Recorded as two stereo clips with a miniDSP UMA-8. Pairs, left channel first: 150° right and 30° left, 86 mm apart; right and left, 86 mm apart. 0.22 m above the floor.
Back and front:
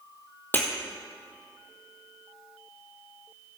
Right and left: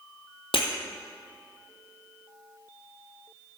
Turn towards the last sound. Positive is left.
turn(degrees=-80)